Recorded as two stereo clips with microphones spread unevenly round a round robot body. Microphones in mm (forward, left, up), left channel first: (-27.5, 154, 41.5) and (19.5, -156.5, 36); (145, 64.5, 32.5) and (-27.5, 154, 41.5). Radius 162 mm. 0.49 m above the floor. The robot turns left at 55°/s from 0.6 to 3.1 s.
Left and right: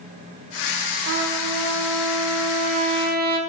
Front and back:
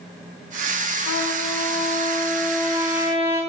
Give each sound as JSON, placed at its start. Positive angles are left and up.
{"t": 1.1, "sound": "a trumpet", "azimuth_deg": -30, "distance_m": 1.2}